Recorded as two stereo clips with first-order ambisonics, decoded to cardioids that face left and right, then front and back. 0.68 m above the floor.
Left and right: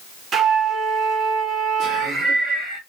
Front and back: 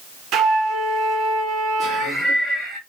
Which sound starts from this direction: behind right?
A flute, at 0.3 s.